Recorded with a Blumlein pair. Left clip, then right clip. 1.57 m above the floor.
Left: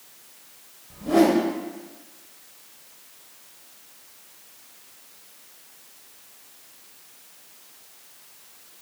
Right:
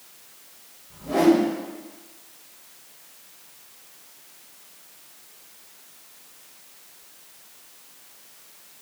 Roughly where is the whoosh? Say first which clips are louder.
Even; ahead left.